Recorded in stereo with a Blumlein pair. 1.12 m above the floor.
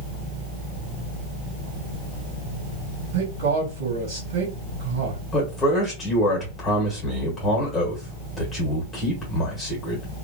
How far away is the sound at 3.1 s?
About 1.6 m.